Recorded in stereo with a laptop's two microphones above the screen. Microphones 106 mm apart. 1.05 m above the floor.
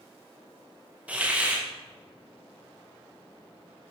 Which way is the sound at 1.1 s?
15° right (ahead or behind).